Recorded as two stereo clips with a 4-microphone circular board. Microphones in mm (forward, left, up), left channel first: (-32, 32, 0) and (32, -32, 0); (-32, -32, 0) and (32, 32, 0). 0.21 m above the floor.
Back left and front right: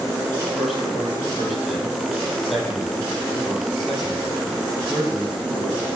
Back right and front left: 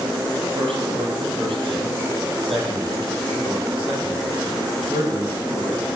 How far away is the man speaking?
About 7.5 m.